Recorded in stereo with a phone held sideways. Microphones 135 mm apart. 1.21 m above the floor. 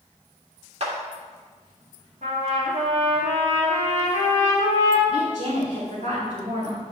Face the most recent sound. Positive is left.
turn(degrees=-85)